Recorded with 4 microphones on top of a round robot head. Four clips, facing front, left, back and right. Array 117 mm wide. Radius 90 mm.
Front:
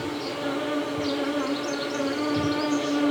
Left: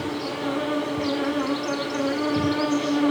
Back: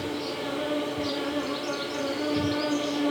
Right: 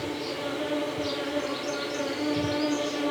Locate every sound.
0.0 s an insect: 80° left, 7.5 m